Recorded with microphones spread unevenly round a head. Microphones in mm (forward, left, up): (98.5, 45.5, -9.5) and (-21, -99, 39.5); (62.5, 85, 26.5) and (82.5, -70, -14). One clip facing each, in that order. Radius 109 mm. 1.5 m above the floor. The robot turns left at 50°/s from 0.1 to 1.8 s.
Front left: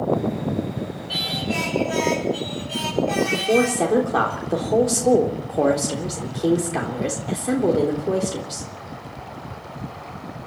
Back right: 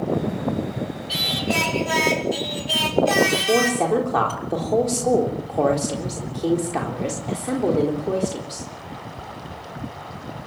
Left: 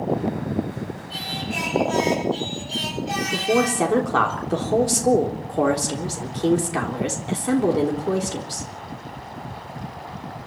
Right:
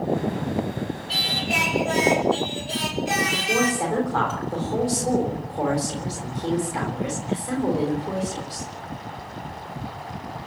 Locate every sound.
1.1 s singing: 95° right, 4.5 m; by 4.3 s 130° right, 4.5 m
3.3 s a woman speaking: 135° left, 3.5 m